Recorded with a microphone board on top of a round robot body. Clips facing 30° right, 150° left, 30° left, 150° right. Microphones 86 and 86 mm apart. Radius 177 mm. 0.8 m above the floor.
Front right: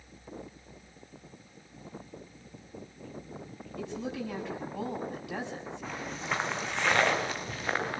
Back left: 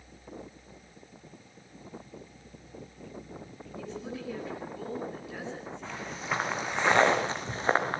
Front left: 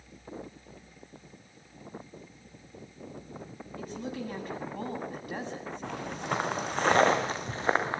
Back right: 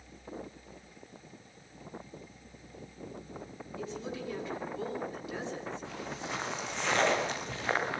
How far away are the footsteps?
About 3.5 m.